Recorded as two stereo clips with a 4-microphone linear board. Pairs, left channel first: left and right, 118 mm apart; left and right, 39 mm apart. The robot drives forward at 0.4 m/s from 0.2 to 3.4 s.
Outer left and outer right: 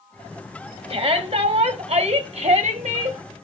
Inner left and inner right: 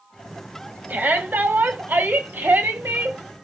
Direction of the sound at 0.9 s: 55° right (ahead or behind).